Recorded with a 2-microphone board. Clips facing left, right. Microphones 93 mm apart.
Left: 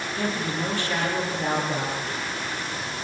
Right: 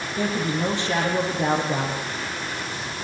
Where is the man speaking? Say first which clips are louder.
Right 4 dB; 20° right (ahead or behind), 6 m.